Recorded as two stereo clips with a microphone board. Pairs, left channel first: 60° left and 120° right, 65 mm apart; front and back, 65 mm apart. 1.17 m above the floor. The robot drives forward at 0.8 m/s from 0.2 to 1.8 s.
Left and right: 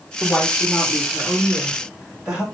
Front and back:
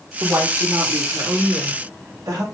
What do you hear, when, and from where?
0.2 s a woman speaking: 145° left, 1.5 m; by 2.4 s 160° left, 2.5 m